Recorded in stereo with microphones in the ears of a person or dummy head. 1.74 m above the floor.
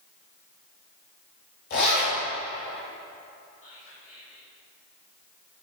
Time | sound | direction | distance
1.7 | a zipper | 50° left (ahead or behind) | 2.5 m
3.6 | whispering | 40° left (ahead or behind) | 1.8 m